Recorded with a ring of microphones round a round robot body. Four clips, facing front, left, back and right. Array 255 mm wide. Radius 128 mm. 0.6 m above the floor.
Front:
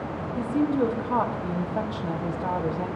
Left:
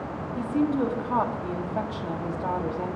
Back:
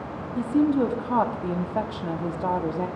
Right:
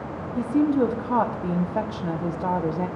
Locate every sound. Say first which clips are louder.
0.4 s a woman speaking: right 4 dB, back 3 dB; 130° right, 0.9 m